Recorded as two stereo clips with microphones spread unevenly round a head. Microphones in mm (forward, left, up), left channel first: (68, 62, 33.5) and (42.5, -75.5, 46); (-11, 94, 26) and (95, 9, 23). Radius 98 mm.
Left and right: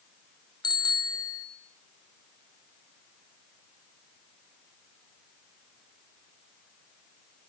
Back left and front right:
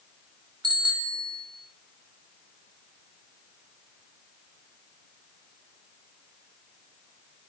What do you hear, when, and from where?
0.6 s a bicycle bell: 20° left, 4 m